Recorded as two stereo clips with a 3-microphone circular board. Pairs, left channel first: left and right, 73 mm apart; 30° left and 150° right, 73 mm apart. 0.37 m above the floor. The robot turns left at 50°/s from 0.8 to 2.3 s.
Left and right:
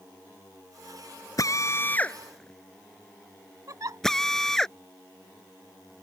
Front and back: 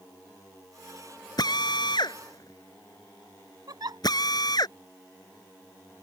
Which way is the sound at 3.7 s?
130° right.